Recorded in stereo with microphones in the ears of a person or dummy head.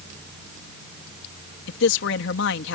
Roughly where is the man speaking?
Left.